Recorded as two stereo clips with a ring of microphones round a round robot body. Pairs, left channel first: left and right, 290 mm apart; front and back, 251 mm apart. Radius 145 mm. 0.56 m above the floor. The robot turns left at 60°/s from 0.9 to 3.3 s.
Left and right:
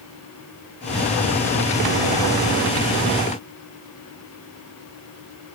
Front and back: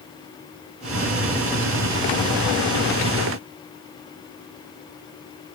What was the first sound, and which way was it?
Only background noise.